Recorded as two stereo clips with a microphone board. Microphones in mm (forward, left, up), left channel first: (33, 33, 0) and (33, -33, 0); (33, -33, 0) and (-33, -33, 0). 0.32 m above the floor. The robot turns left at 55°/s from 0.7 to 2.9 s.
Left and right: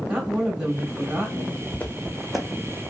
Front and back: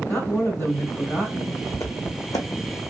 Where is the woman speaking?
15° right, 1.4 m; by 1.6 s 70° right, 1.4 m.